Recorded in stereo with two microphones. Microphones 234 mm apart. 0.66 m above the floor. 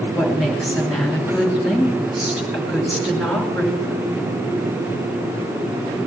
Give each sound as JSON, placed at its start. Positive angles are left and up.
{"t": 0.1, "sound": "a woman speaking", "side_deg": 0, "distance_m": 3.0}